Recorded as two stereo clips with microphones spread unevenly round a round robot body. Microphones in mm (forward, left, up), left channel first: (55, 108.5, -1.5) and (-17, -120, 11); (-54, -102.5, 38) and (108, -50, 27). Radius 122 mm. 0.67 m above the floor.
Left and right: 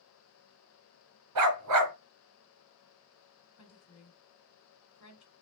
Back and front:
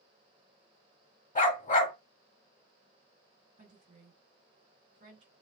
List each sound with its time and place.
1.4 s a dog barking: 120° right, 1.3 m
3.6 s a woman speaking: 65° left, 1.8 m